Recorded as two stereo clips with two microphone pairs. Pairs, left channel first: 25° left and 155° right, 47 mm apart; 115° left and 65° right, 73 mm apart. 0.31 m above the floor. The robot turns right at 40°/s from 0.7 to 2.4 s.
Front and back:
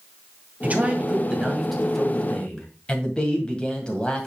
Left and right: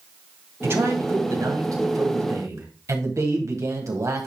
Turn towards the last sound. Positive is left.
turn(degrees=-35)